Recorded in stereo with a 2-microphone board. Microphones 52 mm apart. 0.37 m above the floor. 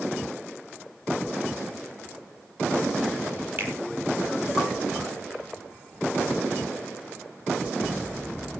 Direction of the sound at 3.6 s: 40° right (ahead or behind).